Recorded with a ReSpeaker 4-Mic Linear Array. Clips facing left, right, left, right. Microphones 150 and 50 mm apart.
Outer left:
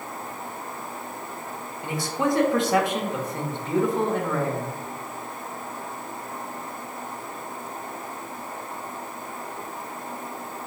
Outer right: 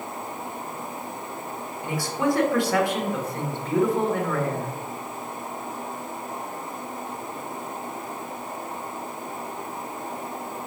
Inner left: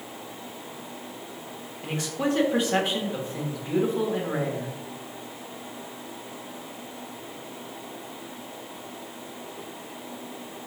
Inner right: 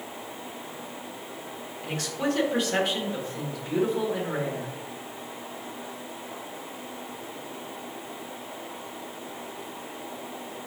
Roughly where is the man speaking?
Centre.